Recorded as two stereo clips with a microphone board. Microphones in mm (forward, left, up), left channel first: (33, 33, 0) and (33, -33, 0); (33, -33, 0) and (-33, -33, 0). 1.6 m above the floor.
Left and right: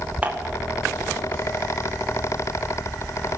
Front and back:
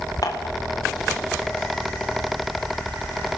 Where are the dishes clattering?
25° right, 1.9 m.